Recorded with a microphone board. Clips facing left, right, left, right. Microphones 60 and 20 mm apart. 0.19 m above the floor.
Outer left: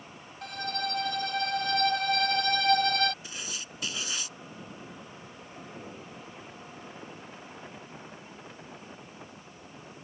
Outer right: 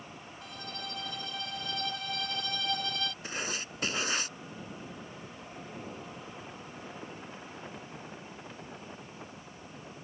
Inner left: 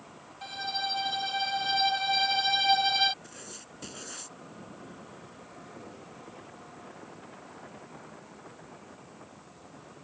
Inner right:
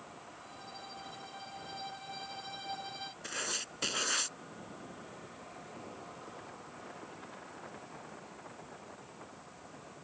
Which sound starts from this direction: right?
Writing, at 3.2 s.